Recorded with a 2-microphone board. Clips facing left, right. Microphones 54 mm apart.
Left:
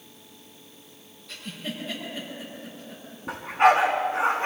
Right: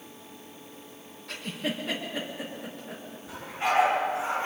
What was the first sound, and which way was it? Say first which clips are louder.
A giggle: right 3 dB; 70° right (ahead or behind).